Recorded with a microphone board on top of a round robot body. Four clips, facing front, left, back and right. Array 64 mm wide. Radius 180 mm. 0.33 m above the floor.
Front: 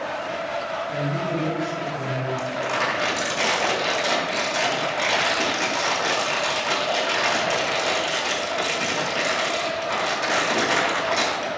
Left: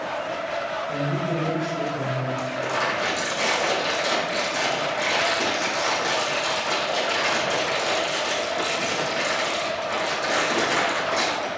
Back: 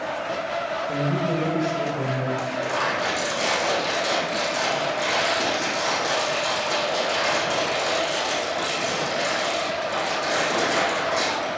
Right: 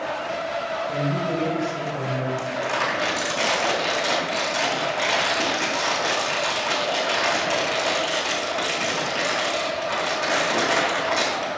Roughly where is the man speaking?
Behind.